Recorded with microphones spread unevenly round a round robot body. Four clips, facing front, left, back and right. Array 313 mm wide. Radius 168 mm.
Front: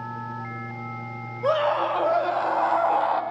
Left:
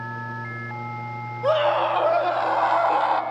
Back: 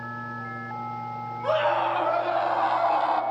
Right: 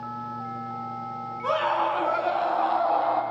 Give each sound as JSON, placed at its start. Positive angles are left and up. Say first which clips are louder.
{"t": 1.4, "sound": "a scream", "louder": "left 4 dB, front 1 dB", "azimuth_deg": 20, "distance_m": 3.5}